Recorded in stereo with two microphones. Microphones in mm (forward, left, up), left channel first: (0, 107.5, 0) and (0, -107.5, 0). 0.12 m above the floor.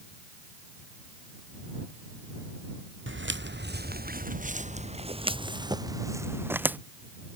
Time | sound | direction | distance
3.1 | footsteps | 60° right (ahead or behind) | ?